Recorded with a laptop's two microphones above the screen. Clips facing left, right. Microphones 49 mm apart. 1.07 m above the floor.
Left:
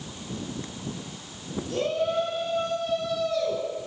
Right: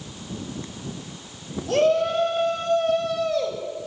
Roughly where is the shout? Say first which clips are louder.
Right 7 dB; right.